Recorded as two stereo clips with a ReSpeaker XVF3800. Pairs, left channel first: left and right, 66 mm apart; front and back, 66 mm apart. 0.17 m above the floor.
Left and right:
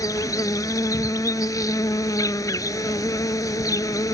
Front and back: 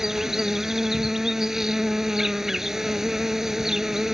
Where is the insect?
100° left.